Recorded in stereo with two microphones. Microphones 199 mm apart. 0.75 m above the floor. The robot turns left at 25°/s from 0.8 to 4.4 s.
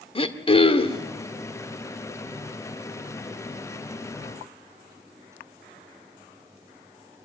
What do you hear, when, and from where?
0.1 s throat clearing: 25° left (ahead or behind), 1.4 m; by 1.1 s 20° left (ahead or behind), 1.4 m